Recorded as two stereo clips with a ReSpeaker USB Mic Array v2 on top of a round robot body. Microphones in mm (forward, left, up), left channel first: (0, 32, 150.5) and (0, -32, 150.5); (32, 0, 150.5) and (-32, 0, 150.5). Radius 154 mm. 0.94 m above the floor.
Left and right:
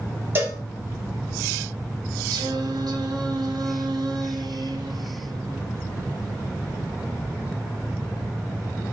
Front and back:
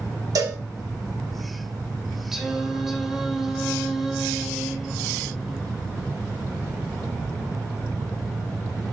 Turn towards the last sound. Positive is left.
turn(degrees=-95)